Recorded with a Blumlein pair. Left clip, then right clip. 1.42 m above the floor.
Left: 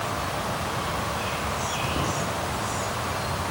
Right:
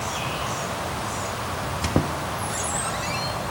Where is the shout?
I don't hear a shout.